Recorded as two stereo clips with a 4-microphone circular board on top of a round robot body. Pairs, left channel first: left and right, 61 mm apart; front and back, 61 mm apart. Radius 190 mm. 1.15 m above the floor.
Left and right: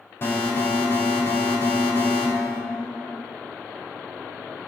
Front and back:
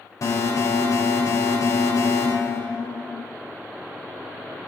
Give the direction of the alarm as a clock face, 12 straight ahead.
11 o'clock.